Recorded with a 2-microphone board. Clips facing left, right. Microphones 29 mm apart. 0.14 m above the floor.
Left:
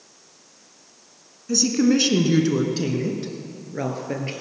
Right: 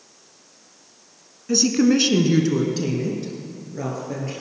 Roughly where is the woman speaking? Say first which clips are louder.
Right 1 dB; right.